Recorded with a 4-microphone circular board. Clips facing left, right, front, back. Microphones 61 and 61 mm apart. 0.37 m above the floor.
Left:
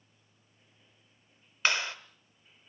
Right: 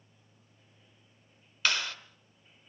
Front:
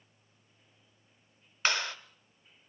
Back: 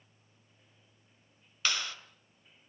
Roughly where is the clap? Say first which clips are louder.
Left 1 dB, front 4 dB; ahead left.